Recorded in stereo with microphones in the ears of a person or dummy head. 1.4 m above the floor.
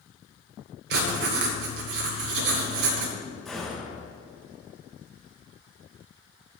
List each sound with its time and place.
0.9 s writing: 65° right (ahead or behind), 1.8 m
3.5 s a gunshot: centre (ahead or behind), 3 m